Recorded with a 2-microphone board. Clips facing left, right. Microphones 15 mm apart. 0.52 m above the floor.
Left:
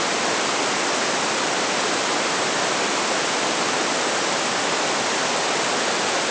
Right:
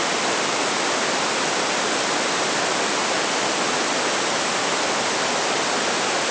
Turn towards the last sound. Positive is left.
No sound to turn to.